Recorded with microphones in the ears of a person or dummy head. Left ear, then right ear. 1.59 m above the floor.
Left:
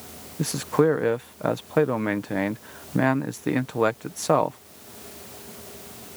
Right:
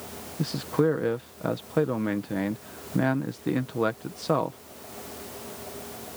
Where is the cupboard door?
I don't hear a cupboard door.